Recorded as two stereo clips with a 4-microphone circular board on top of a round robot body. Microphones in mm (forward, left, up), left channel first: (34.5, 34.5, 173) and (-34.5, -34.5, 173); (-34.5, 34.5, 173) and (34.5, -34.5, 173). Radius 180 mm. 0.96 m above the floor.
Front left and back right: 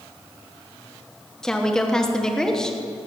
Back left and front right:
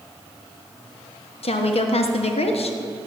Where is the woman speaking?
130° left, 1.4 m.